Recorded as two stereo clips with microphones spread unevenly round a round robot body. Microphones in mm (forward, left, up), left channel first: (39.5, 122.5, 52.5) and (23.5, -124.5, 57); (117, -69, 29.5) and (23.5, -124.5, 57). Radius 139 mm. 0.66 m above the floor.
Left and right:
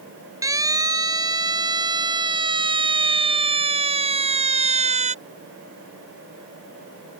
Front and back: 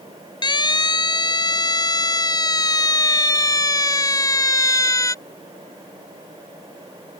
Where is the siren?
15° right; by 5.2 s 30° right.